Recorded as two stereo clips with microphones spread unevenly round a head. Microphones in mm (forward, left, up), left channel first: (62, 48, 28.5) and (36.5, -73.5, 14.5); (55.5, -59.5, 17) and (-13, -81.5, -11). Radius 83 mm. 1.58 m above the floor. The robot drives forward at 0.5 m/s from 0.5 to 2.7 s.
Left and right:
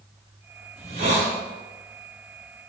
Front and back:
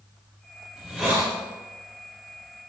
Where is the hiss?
70° right, 4.5 m; by 1.3 s 75° right, 4.5 m.